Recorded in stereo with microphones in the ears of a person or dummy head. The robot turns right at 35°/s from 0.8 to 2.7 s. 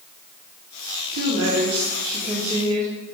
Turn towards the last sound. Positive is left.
turn(degrees=-25)